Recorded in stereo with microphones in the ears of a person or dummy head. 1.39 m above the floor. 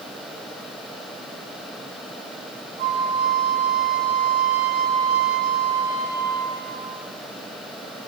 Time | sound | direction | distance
2.8 | a flute | 55° right (ahead or behind) | 2 m